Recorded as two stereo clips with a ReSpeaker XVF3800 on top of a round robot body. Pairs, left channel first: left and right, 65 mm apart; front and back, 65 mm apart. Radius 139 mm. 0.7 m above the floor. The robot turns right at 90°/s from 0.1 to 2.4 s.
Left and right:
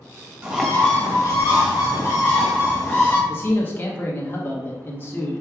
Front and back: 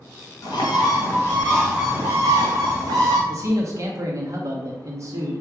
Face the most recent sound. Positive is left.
turn(degrees=150)